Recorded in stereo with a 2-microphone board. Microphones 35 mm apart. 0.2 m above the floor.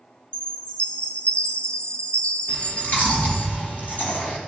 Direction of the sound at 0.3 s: 35° left (ahead or behind).